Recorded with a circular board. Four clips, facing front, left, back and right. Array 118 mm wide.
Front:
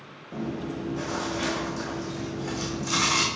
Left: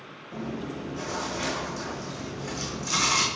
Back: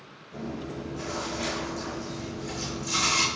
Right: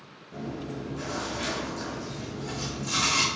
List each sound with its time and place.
0.3 s chewing: 20° left, 3.5 m